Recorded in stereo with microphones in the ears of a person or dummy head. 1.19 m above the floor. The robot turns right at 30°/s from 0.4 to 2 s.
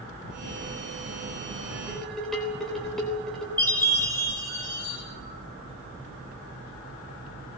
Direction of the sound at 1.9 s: 10° left (ahead or behind).